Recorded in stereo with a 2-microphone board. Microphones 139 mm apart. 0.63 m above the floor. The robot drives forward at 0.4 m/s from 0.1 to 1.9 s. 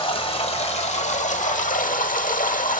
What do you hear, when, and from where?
0.0 s running water: 40° left (ahead or behind), 1.3 m; by 2.8 s 75° left (ahead or behind), 0.9 m